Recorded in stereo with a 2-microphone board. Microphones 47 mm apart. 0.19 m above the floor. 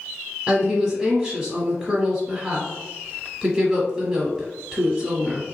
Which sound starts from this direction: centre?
A woman speaking, at 0.5 s.